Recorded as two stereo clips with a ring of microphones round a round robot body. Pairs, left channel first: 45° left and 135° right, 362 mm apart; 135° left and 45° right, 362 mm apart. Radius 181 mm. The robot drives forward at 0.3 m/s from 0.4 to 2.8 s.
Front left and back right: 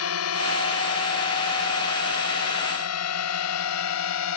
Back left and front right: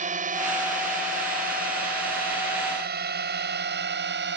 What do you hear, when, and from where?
0.0 s a drone: 15° left; by 4.4 s 10° left